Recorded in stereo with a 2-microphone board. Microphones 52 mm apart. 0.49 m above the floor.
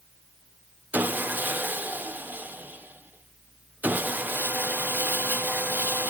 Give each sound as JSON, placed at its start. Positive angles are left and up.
{"t": 0.9, "sound": "sawing", "side_deg": -35, "distance_m": 1.0}